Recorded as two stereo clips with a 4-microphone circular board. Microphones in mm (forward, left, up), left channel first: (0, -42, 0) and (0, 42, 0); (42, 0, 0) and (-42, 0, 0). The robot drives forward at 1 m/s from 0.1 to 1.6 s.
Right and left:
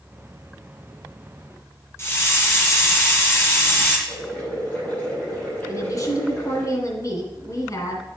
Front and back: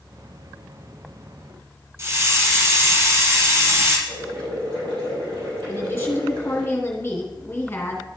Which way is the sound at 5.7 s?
60° right.